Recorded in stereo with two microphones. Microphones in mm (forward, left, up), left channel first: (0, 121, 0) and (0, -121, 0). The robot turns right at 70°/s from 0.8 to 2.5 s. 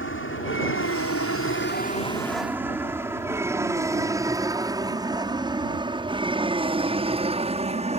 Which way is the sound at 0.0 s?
60° left (ahead or behind).